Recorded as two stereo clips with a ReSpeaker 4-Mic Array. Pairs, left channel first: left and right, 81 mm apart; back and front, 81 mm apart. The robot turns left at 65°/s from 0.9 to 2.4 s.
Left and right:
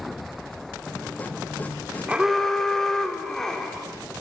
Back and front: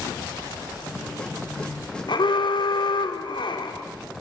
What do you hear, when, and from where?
2.1 s an alarm: 165° right, 2.5 m; by 3.8 s 175° left, 2.5 m